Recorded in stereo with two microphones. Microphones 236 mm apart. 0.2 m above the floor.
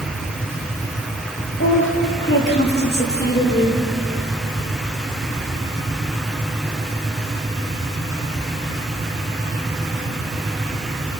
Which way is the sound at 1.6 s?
55° left (ahead or behind).